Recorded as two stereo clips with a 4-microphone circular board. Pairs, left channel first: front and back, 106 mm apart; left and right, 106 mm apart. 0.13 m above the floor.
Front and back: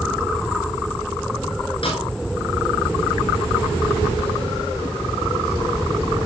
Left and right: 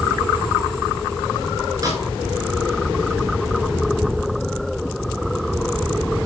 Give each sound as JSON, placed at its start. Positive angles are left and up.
{"t": 1.8, "sound": "a snare drum", "azimuth_deg": -35, "distance_m": 10.0}